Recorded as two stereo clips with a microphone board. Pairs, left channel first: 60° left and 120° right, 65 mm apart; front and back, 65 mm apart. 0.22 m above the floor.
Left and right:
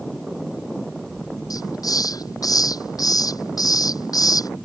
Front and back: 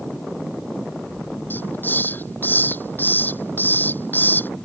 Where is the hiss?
55° left.